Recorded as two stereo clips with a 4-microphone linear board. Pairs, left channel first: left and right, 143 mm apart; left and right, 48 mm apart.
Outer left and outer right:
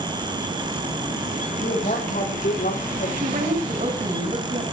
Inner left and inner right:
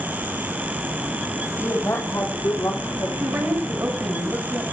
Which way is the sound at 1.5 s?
60° left (ahead or behind).